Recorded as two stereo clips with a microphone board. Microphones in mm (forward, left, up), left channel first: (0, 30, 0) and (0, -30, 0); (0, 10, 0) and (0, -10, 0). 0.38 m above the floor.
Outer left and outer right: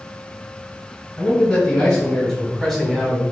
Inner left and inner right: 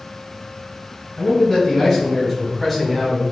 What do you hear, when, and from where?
1.2 s a man speaking: 15° left (ahead or behind), 1.7 m; by 3.2 s 10° right (ahead or behind), 2.5 m